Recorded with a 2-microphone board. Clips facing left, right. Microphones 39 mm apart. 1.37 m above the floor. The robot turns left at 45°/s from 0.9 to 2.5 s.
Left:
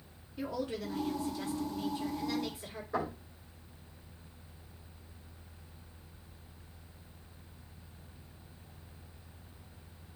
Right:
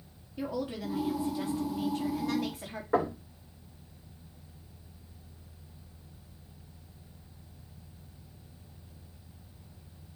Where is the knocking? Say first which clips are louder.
Right 7 dB; 65° right (ahead or behind), 4 m.